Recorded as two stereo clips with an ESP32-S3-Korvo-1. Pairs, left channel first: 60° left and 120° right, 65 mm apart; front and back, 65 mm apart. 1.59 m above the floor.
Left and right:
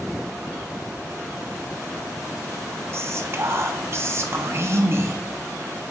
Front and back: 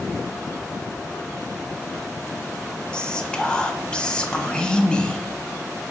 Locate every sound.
2.9 s whispering: 75° right, 1.0 m